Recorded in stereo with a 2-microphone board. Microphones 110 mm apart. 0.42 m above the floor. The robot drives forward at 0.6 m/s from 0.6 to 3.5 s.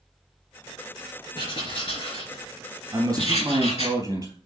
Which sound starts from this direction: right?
A man speaking, at 2.9 s.